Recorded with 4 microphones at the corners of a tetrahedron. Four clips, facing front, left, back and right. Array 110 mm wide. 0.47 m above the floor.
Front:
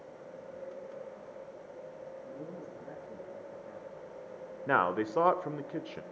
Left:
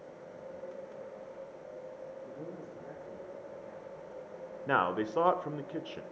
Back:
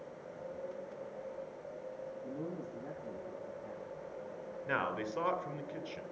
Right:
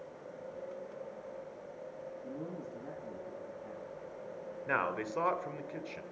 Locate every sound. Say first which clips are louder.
2.2 s a man speaking: right 1 dB, back 2 dB; 135° right, 10 m
4.7 s a man speaking: left 4 dB, front 7 dB; 30° left, 1.1 m